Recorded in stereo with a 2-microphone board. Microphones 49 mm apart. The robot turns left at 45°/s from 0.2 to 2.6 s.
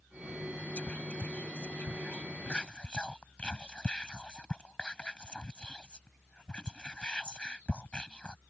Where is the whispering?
30° left (ahead or behind); by 8.4 s 20° left (ahead or behind).